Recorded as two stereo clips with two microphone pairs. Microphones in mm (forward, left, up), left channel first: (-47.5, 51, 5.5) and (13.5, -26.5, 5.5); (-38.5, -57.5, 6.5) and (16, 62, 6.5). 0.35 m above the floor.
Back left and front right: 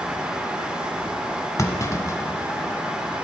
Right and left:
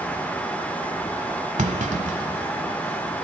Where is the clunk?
75° left, 1.0 m.